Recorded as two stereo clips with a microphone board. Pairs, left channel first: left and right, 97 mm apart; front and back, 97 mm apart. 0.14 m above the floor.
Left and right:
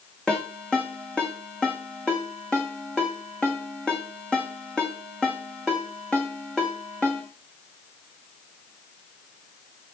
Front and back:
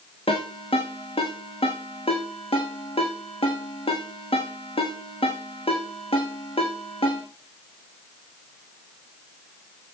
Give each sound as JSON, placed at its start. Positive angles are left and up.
{"t": 0.3, "sound": "a ringtone", "azimuth_deg": 10, "distance_m": 5.5}